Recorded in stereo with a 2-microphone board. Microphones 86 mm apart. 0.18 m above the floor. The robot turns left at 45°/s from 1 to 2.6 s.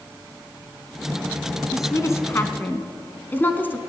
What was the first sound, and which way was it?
A woman speaking, 40° left (ahead or behind).